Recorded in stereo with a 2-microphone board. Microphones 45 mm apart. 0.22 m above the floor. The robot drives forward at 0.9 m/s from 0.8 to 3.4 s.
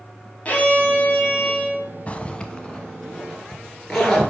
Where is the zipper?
30° left (ahead or behind), 0.6 m; by 4.3 s 10° left (ahead or behind), 1.6 m.